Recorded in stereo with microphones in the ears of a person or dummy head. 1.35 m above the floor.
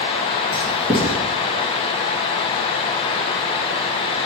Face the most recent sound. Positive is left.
turn(degrees=-30)  # may be behind; listen again after turning